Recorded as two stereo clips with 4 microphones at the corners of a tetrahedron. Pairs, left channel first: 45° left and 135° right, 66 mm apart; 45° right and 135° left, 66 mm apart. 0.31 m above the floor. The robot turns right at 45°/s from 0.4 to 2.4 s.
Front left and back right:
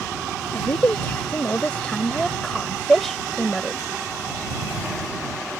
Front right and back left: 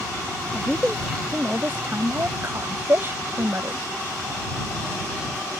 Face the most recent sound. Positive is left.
turn(degrees=135)